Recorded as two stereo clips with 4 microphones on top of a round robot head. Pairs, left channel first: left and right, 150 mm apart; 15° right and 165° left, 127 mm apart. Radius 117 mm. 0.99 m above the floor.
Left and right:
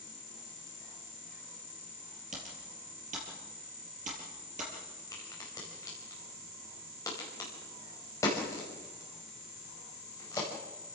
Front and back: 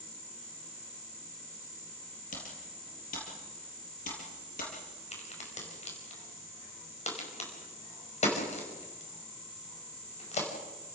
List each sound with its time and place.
2.3 s typing on a keyboard: 40° right, 5 m
5.1 s a crack: 15° left, 5 m